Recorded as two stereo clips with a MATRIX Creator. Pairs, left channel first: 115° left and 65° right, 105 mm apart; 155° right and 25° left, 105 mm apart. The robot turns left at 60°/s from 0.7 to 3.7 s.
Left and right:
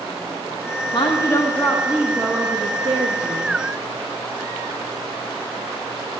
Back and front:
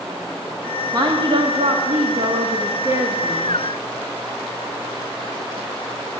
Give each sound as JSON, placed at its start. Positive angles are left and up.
{"t": 0.9, "sound": "a woman speaking", "azimuth_deg": 75, "distance_m": 1.4}